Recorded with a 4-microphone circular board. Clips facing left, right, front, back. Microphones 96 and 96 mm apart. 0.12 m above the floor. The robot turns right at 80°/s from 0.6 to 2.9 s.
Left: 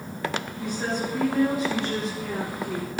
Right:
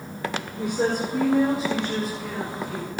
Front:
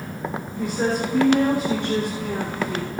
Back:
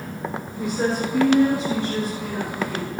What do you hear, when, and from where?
0.6 s a woman speaking: 95° right, 4.5 m; by 2.9 s 85° left, 4.5 m